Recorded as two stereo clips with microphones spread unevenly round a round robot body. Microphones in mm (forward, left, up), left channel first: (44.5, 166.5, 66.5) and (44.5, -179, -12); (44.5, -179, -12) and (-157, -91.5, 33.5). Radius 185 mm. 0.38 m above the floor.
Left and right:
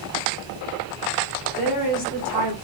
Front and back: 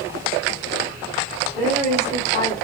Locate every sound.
1.6 s a woman speaking: 95° left, 0.9 m